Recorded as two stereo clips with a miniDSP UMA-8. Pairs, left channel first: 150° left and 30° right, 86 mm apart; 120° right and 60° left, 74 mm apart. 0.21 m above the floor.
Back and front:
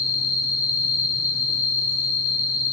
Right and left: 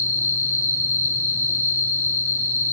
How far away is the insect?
About 3.5 m.